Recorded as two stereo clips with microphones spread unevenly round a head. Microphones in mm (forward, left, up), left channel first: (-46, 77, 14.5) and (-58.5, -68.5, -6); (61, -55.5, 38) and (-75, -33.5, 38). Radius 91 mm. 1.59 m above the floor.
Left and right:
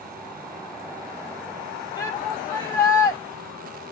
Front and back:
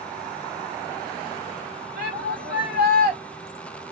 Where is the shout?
150° left, 1.8 m.